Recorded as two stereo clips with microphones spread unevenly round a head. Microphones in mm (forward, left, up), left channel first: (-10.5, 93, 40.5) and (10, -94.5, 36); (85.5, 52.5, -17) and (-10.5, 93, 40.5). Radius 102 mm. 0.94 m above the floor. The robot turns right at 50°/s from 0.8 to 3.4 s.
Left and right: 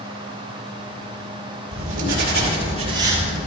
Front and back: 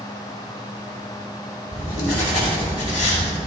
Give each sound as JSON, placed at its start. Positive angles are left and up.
{"t": 1.7, "sound": "writing", "azimuth_deg": -80, "distance_m": 5.5}